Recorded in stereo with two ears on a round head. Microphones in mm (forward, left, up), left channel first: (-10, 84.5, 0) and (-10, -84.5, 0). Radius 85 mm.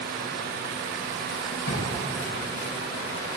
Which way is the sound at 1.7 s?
65° left (ahead or behind).